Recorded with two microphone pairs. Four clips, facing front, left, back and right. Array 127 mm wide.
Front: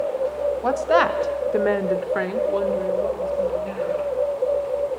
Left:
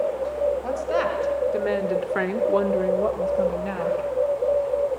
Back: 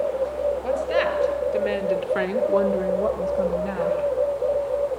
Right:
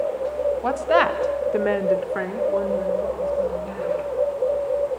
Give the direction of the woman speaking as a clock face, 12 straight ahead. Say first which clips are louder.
Right 5 dB, front 7 dB; 2 o'clock.